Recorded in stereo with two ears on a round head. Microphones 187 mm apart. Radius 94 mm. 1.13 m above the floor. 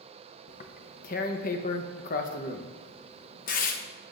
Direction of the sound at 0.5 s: 40° left (ahead or behind).